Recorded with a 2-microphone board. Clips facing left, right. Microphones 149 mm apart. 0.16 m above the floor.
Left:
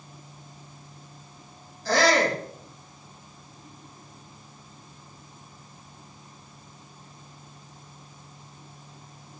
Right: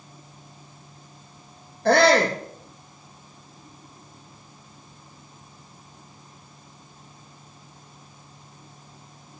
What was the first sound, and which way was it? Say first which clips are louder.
A shout: right 4 dB; 65° right (ahead or behind).